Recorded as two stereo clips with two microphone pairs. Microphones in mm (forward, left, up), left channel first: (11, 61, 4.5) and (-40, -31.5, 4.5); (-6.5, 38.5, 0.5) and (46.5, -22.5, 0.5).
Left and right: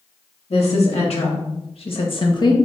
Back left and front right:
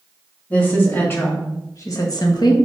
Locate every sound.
0.5 s a woman speaking: 65° left, 2.5 m; by 2.5 s 105° left, 1.3 m